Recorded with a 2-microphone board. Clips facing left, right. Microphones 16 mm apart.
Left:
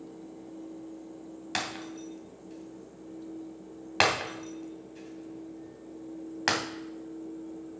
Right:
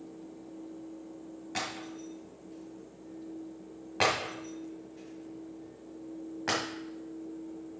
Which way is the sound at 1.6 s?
85° left.